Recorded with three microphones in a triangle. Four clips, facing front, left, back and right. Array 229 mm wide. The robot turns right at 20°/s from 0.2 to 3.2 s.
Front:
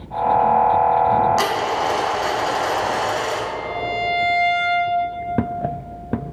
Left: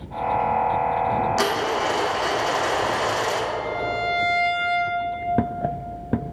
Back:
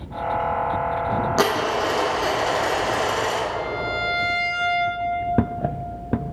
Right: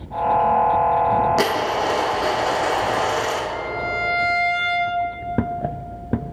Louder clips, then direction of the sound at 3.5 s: Even, front 1 dB; 80° right.